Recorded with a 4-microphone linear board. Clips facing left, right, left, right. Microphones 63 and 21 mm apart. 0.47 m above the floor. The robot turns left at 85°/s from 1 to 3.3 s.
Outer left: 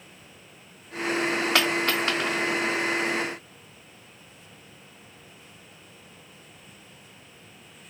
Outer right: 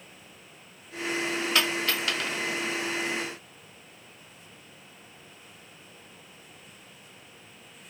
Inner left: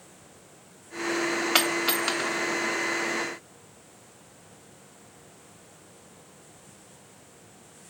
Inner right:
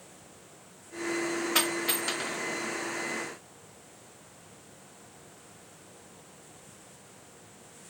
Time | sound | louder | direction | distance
1.6 | a dropped coin | outer left 3 dB, inner left 5 dB | 75° left (ahead or behind) | 1.2 m